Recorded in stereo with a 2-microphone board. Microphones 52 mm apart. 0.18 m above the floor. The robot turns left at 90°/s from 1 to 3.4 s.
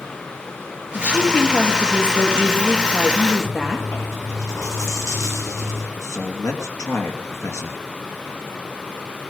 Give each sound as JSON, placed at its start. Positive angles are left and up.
{"t": 0.9, "sound": "a woman speaking", "azimuth_deg": 40, "distance_m": 3.5}
{"t": 3.4, "sound": "chewing", "side_deg": 80, "distance_m": 10.0}
{"t": 6.0, "sound": "a man speaking", "side_deg": 65, "distance_m": 2.5}